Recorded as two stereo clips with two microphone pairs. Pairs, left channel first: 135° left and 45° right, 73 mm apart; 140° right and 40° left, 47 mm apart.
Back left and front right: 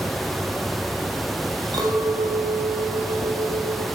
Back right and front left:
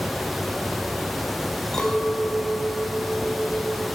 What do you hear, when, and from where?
1.7 s a clink: 65° right, 3.5 m